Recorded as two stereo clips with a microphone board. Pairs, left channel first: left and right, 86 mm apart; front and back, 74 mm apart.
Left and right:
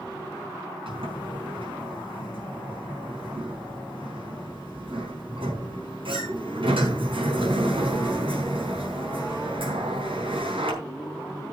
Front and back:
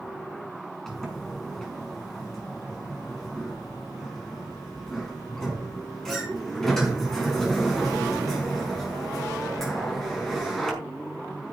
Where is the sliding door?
85° right, 5 m.